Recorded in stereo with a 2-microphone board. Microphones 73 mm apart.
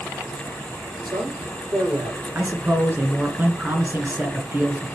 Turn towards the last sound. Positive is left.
turn(degrees=-30)  # may be behind; listen again after turning